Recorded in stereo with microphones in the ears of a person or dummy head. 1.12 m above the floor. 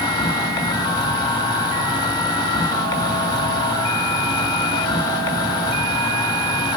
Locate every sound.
0.0 s an insect: 20° left (ahead or behind), 1.9 m